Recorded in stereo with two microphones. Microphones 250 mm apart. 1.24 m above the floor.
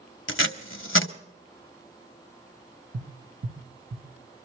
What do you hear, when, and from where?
0.3 s tape being pulled: 60° left (ahead or behind), 1.0 m
2.9 s tapping: 50° right (ahead or behind), 1.4 m